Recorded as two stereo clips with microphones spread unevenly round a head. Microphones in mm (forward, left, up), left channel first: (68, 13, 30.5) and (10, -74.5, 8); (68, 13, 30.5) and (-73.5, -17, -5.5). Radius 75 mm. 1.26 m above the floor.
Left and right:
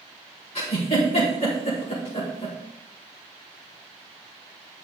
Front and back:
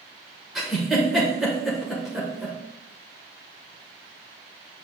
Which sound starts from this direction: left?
A giggle, at 0.6 s.